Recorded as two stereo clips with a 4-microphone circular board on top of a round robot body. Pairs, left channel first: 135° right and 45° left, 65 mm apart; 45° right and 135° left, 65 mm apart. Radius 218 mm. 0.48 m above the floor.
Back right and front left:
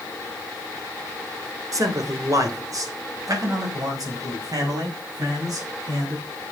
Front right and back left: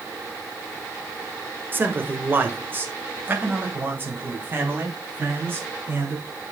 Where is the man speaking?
75° left, 2.5 m.